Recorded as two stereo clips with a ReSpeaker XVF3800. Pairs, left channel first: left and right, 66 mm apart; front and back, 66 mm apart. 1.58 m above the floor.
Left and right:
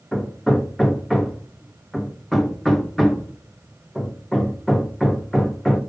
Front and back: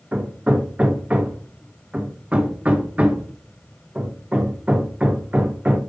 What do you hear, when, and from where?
0.1 s hammering: 165° left, 1.2 m